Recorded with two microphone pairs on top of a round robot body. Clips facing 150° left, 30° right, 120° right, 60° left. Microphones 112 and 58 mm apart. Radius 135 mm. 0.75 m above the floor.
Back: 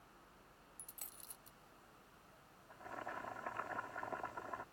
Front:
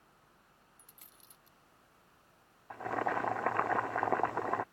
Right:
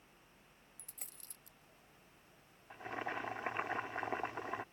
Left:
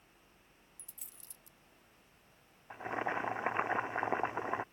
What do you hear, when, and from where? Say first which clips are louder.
0.8 s a dropped coin: back 2 dB, right 2 dB; 160° right
2.7 s boiling: front 14 dB, left 5 dB; 10° right